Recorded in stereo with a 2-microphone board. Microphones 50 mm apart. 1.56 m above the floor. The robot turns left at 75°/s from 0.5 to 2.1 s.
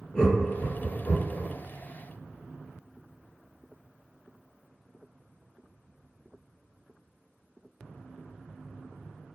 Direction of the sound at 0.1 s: 20° left (ahead or behind).